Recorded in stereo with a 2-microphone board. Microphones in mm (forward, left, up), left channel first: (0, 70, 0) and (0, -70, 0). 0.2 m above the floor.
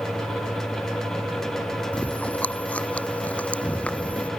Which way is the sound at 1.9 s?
10° left (ahead or behind).